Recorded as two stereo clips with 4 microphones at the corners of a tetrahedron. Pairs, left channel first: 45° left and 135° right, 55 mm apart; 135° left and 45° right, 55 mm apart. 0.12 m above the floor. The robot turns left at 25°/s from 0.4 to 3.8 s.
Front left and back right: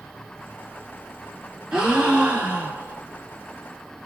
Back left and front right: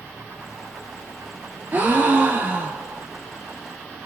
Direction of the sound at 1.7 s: 70° right.